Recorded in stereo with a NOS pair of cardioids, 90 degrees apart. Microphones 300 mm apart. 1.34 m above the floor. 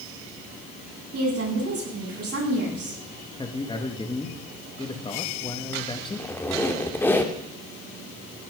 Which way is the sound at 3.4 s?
15° left.